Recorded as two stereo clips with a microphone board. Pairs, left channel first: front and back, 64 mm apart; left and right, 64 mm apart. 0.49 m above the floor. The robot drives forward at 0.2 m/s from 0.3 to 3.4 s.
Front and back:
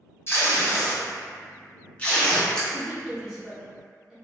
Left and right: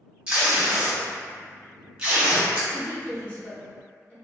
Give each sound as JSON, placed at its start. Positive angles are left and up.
{"t": 0.3, "sound": "tape being pulled", "azimuth_deg": -20, "distance_m": 1.0}
{"t": 2.7, "sound": "a woman speaking", "azimuth_deg": 105, "distance_m": 1.1}